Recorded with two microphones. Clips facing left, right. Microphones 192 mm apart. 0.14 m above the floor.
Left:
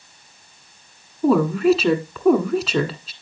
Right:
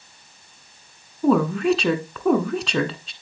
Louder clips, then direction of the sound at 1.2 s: Left 2 dB; 5° left (ahead or behind).